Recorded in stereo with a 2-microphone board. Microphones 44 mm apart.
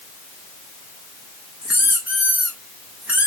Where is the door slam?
No door slam in this recording.